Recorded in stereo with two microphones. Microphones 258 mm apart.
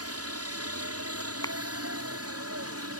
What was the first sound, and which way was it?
A helicopter, 65° right (ahead or behind).